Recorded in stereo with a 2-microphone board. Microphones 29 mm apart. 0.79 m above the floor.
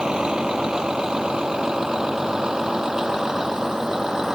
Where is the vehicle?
25° right (ahead or behind); by 4.3 s 20° right (ahead or behind).